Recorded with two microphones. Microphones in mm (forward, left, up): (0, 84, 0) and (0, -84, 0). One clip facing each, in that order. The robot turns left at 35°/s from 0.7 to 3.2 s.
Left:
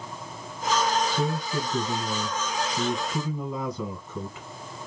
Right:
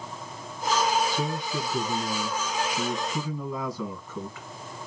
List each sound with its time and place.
1.1 s a man speaking: 100° left, 1.5 m; by 4.5 s 25° left, 1.5 m